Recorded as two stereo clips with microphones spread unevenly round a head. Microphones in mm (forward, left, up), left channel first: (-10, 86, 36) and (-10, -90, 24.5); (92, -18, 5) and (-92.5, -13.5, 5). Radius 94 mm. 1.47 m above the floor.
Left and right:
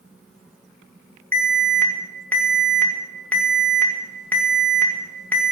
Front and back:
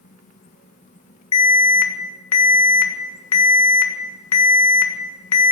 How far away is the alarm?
About 1.9 m.